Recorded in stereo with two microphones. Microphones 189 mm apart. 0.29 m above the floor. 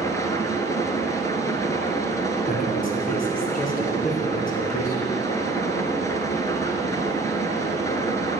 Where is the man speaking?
45° left (ahead or behind), 4 m.